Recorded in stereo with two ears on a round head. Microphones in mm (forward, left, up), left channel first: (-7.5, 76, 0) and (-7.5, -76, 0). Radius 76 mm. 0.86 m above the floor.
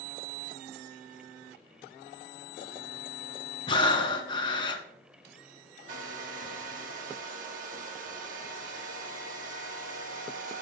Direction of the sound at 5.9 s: 50° right (ahead or behind).